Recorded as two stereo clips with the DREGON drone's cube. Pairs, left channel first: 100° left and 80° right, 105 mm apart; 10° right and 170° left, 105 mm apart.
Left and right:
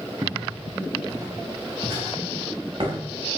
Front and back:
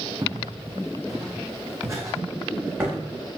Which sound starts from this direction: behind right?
Footsteps, at 0.2 s.